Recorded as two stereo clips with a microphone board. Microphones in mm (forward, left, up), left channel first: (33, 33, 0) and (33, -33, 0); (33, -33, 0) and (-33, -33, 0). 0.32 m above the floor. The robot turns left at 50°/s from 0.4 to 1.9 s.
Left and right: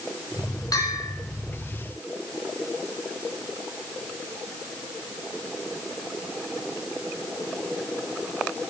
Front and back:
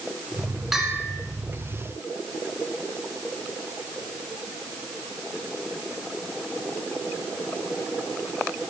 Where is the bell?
95° left, 4 m; by 1.1 s 75° left, 4 m.